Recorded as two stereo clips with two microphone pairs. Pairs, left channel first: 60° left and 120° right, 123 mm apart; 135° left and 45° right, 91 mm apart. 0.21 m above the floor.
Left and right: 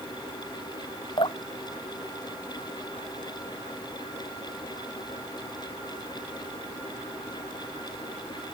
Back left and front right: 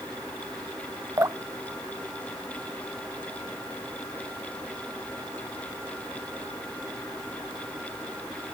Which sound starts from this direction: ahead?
Dripping, at 1.2 s.